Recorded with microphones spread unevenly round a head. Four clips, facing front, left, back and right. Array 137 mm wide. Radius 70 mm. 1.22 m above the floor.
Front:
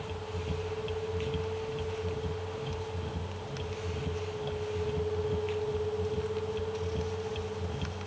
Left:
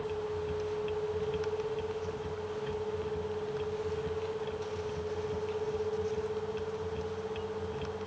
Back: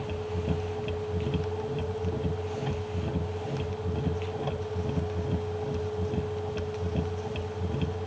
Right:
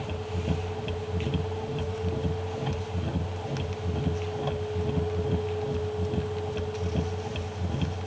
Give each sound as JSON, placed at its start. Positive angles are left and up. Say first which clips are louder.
{"t": 0.0, "sound": "a machine running", "louder": "even, back 5 dB", "azimuth_deg": -130}